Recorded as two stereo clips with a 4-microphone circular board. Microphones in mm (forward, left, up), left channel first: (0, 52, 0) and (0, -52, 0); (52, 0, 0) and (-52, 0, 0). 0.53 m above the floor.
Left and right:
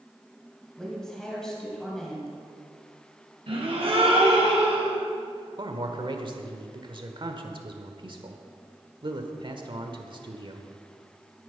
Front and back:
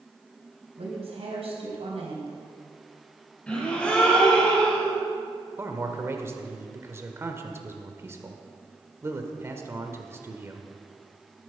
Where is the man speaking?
120° right, 1.3 m.